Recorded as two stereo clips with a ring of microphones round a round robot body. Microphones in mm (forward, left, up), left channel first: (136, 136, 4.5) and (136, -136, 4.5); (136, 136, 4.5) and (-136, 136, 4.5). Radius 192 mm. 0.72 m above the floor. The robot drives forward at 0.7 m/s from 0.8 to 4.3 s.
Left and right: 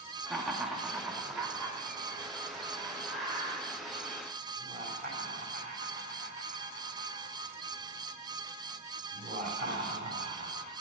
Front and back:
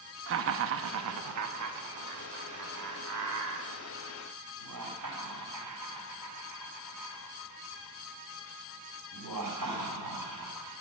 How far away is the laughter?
About 0.7 m.